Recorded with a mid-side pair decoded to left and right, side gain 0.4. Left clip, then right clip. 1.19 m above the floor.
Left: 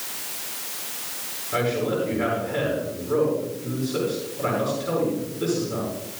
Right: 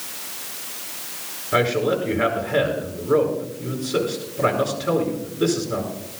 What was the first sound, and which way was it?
A man speaking, 65° right.